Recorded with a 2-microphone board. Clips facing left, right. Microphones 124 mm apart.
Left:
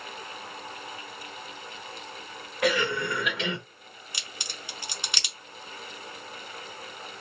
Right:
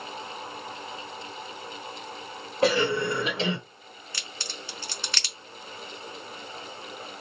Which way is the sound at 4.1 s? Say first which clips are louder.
Right 2 dB; 15° left (ahead or behind).